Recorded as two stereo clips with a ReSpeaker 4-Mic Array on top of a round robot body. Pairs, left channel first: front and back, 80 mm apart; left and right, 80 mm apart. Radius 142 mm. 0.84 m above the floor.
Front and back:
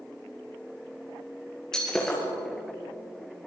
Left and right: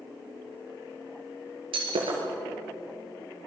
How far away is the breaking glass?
About 3.5 m.